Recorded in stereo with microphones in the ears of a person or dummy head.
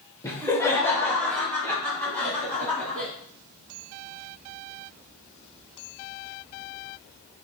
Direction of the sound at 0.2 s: 20° left (ahead or behind).